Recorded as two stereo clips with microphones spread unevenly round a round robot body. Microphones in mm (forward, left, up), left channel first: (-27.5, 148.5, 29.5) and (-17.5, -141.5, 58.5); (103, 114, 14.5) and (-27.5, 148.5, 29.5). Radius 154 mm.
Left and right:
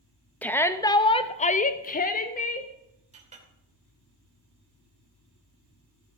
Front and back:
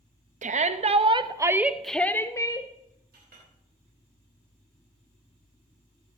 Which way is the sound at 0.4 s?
170° left.